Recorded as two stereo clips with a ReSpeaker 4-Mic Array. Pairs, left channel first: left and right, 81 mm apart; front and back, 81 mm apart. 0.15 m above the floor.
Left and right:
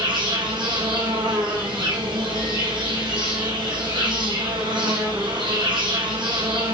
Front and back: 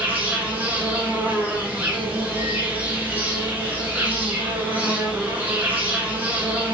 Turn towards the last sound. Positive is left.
turn(degrees=-110)